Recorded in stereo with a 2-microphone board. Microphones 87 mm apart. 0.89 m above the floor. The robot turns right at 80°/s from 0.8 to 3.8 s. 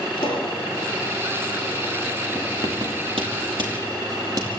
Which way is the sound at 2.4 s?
15° right (ahead or behind).